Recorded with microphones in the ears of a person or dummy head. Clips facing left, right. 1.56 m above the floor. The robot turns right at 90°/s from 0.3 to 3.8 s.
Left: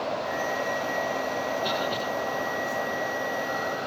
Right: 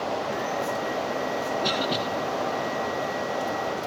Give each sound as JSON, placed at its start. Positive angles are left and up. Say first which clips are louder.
{"t": 1.6, "sound": "a cough", "louder": "right 2 dB", "azimuth_deg": -145, "distance_m": 3.5}